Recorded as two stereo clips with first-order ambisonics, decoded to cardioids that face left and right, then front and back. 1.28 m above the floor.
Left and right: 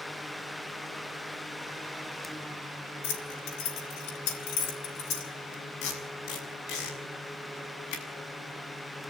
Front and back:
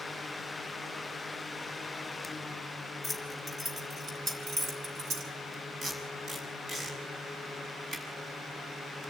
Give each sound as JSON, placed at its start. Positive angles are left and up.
{"t": 3.0, "sound": "keys jangling", "azimuth_deg": 90, "distance_m": 4.5}
{"t": 5.8, "sound": "tape being pulled", "azimuth_deg": 110, "distance_m": 6.5}